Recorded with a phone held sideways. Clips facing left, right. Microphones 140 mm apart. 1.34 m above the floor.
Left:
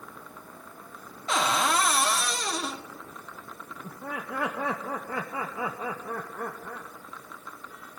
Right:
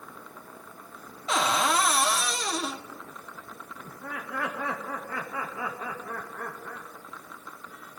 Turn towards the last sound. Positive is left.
turn(degrees=25)  # may be behind; listen again after turning